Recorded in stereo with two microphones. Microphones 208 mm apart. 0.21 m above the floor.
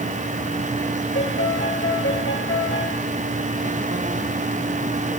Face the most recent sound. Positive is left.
turn(degrees=75)  # may be behind; listen again after turning